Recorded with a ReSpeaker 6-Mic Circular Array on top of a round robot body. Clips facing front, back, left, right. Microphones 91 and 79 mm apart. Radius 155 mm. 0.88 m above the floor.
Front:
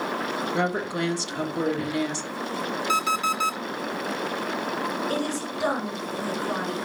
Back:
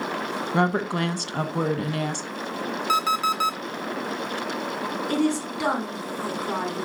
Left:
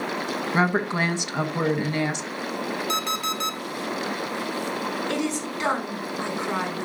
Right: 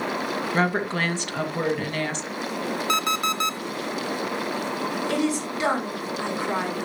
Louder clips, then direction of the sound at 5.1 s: Back 4 dB, right 2 dB; 175° right.